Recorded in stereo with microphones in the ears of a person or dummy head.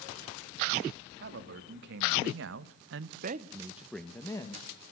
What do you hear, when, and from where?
1.2 s a man speaking: 60° right (ahead or behind), 2.5 m; by 4.7 s 25° left (ahead or behind), 1.8 m